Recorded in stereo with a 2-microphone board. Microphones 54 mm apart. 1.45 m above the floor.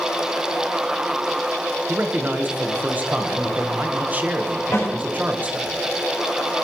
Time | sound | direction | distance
1.9 | a man speaking | 30° right (ahead or behind) | 1.3 m
4.7 | a snare drum | 55° left (ahead or behind) | 6.5 m